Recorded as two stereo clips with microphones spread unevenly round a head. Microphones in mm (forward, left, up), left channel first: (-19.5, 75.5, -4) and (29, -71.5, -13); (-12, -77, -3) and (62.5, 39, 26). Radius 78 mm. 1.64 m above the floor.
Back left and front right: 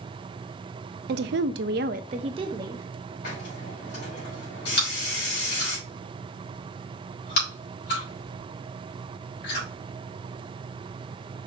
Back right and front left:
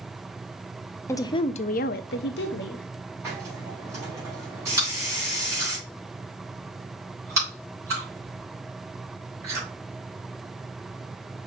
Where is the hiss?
130° left, 3.5 m.